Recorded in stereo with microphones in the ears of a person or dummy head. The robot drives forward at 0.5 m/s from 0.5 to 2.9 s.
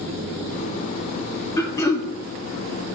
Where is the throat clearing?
15° left (ahead or behind), 1.1 m.